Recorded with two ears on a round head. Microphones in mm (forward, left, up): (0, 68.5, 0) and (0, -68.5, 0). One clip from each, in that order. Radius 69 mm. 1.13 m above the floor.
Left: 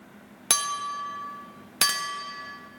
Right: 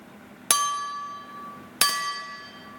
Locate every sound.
0.5 s a clink: 5° right (ahead or behind), 0.5 m